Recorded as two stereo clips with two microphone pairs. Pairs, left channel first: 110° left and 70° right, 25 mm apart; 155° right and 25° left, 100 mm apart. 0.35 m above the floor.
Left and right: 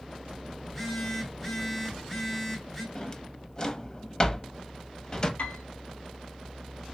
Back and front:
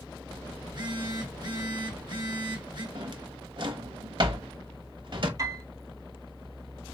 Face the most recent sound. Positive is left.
turn(degrees=80)